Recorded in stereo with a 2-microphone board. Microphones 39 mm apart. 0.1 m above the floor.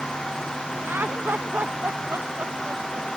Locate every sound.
0.8 s laughter: 60° right (ahead or behind); by 3.1 s 50° right (ahead or behind)